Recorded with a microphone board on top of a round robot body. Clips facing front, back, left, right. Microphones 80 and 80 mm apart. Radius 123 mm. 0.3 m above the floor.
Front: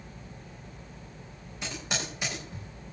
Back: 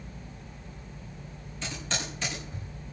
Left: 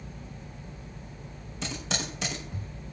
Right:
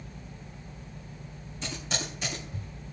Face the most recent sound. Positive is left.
turn(degrees=80)